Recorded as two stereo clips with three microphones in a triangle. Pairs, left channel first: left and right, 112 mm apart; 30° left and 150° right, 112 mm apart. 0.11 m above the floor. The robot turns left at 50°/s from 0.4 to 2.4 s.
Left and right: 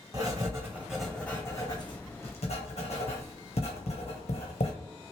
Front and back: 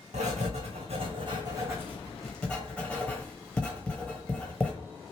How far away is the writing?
About 1.2 m.